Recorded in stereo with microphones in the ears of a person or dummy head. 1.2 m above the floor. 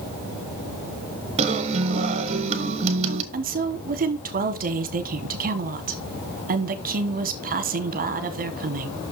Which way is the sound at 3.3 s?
40° right (ahead or behind).